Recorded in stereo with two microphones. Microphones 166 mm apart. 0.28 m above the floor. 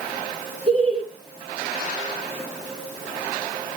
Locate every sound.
0.7 s laughter: 40° right (ahead or behind), 3 m